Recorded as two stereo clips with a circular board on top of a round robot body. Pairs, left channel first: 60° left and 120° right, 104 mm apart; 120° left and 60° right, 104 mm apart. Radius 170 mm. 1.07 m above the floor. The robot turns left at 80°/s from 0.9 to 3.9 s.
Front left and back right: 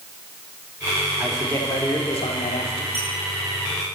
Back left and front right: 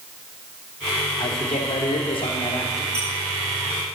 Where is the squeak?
85° right, 9 m; by 3.1 s 100° right, 9 m.